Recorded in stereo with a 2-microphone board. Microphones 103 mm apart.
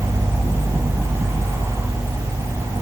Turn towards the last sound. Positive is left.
No sound to turn to.